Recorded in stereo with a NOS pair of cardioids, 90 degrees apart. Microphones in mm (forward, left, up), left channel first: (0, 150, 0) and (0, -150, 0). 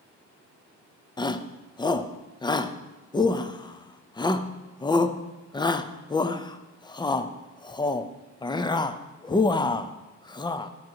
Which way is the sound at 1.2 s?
15° left.